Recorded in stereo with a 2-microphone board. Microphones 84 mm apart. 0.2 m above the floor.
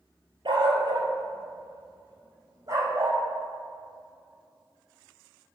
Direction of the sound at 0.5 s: 70° right (ahead or behind).